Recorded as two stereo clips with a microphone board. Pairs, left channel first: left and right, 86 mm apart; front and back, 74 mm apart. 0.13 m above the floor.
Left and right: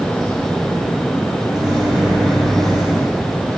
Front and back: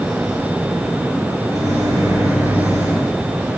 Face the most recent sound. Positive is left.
turn(degrees=-175)